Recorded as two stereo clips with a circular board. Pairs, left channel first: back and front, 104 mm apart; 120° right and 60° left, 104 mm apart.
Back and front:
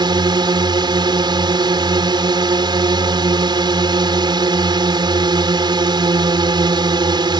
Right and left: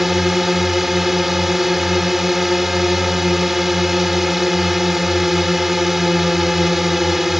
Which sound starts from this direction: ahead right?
A drone, at 0.0 s.